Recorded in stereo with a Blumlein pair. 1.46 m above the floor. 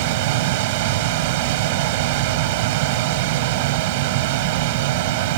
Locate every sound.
0.0 s a machine running: 50° right